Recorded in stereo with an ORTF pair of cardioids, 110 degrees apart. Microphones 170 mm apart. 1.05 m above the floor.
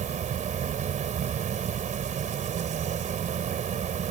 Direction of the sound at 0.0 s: 45° right.